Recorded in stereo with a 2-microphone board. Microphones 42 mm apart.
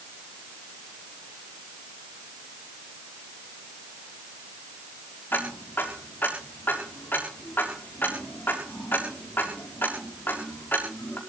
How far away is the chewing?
I don't hear chewing.